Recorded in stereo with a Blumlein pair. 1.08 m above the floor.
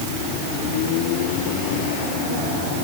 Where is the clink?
No clink in this recording.